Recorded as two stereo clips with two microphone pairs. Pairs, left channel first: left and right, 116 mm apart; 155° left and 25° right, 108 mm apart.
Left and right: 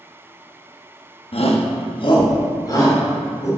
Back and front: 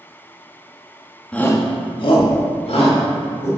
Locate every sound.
1.3 s a shout: 80° left, 1.0 m; by 3.5 s 150° left, 3 m